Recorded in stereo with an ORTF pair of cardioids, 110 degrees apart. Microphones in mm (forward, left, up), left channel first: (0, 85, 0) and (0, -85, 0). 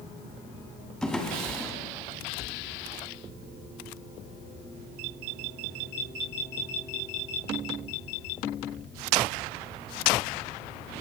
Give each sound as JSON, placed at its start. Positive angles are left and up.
{"t": 1.0, "sound": "a drawer", "azimuth_deg": 0, "distance_m": 1.9}